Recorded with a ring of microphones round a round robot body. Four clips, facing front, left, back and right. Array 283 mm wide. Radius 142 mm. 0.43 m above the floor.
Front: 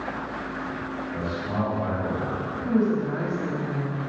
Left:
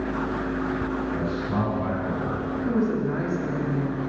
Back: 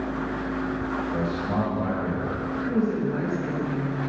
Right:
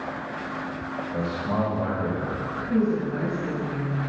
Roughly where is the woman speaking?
Ahead left.